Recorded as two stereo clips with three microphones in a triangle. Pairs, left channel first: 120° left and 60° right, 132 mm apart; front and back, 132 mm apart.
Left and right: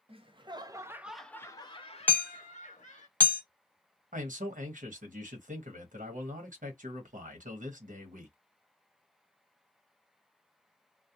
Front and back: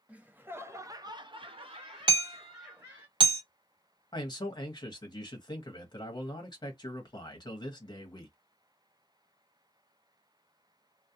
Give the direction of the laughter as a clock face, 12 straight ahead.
3 o'clock.